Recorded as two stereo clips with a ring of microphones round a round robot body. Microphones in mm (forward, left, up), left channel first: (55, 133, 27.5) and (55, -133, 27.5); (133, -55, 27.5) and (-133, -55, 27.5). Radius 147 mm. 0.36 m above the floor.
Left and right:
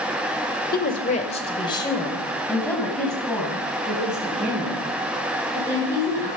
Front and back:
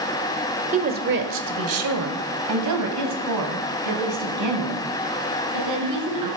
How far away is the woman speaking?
About 1.0 m.